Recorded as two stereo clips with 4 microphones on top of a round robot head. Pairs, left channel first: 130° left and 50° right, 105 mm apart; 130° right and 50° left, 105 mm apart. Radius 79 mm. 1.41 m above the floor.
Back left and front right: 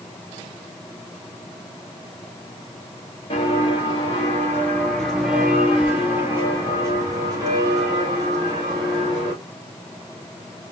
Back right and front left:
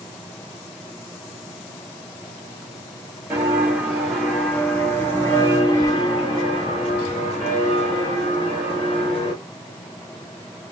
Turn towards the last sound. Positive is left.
turn(degrees=-95)